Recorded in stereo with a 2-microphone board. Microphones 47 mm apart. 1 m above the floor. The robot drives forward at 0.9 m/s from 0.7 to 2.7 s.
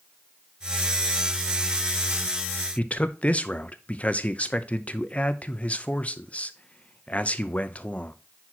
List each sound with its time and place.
2.8 s a man speaking: 30° left (ahead or behind), 0.7 m